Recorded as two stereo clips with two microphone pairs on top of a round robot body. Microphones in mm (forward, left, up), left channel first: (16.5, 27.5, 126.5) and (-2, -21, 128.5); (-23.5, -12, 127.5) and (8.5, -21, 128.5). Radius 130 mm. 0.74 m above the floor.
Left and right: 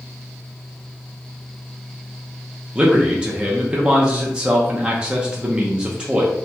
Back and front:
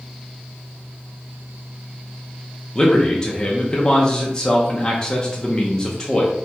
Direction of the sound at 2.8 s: 165° right.